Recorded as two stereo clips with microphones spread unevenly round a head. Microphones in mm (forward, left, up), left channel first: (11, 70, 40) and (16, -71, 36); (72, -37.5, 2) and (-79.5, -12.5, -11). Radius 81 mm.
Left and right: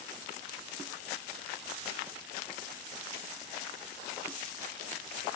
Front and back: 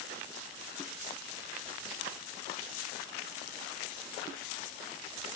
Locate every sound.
Only background noise.